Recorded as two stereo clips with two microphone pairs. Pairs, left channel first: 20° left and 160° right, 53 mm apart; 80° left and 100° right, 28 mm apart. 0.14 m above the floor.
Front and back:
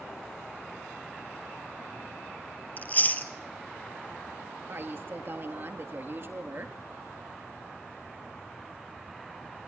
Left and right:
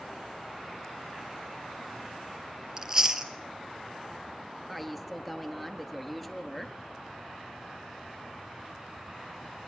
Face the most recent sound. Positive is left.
turn(degrees=170)